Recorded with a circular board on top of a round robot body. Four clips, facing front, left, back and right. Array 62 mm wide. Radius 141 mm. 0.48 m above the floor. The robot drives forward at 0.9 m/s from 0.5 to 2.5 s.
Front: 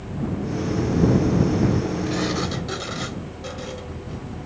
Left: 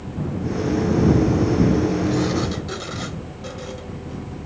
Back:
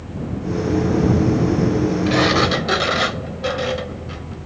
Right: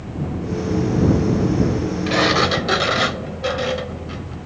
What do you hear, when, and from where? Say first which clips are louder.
2.1 s a sliding door: right 4 dB, back 8 dB; 130° right; by 4.3 s 135° right